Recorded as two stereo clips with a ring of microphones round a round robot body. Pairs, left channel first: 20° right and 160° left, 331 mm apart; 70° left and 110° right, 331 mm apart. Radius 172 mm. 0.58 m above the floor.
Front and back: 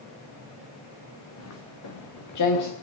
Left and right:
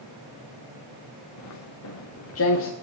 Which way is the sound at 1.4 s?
25° left.